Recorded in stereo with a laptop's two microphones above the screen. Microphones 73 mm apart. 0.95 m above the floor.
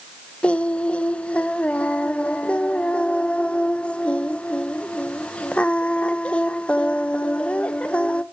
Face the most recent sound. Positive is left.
turn(degrees=15)  # may be behind; listen again after turning